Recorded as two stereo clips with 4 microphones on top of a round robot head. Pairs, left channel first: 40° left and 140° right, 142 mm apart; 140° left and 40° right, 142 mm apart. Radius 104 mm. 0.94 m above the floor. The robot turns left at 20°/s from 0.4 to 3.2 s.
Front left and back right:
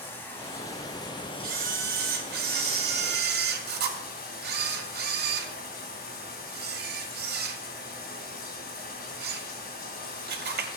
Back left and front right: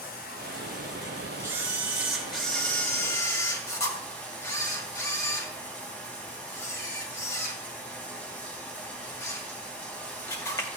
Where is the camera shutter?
115° right, 2 m; by 10.7 s 150° right, 2 m.